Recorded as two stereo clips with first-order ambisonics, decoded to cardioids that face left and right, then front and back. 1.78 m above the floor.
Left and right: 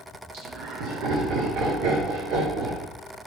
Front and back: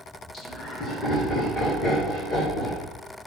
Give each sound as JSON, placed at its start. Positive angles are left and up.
{"t": 0.3, "sound": "laughter", "azimuth_deg": -85, "distance_m": 2.0}